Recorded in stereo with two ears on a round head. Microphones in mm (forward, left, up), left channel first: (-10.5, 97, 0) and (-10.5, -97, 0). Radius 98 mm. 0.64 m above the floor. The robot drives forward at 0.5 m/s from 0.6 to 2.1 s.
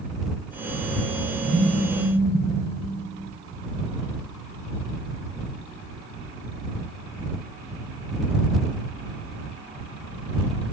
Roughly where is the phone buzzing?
Centre.